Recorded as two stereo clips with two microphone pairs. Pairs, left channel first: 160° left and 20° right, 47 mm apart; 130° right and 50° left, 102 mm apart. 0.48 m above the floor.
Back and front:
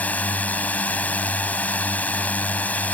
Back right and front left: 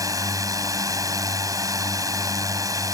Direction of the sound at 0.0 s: 105° left.